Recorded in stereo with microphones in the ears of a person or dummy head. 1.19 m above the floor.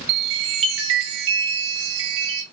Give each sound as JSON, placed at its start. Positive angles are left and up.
{"t": 0.1, "sound": "a chime", "side_deg": -75, "distance_m": 0.8}